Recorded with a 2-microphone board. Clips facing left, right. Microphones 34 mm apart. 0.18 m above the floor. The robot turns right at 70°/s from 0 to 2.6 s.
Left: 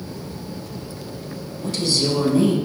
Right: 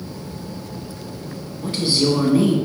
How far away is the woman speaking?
About 1.1 m.